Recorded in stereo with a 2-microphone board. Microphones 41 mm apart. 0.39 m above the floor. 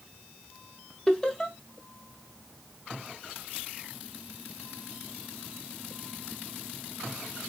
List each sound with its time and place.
1.1 s laughter: 15° left (ahead or behind), 1.3 m